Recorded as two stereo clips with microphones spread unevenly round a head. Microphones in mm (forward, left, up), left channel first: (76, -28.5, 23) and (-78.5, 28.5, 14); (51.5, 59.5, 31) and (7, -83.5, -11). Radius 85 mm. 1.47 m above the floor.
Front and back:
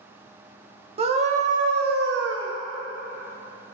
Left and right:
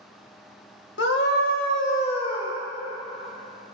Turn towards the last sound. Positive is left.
turn(degrees=145)